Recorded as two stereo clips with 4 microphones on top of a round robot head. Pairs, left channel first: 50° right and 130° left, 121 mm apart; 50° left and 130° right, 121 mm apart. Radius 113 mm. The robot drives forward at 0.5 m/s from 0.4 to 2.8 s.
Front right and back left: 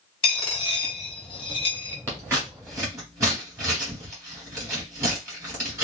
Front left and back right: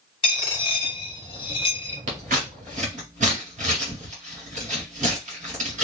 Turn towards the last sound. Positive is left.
turn(degrees=-160)